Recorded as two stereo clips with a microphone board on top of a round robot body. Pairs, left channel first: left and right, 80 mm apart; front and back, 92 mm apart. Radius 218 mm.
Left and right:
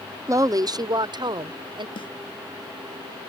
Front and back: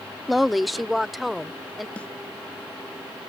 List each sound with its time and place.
0.3 s a woman speaking: 90° right
2.0 s a snare drum: 80° left